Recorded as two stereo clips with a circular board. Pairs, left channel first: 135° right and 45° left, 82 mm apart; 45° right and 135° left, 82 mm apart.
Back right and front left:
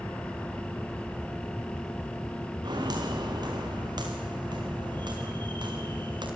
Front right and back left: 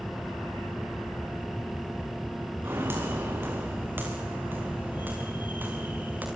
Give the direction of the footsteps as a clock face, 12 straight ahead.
10 o'clock.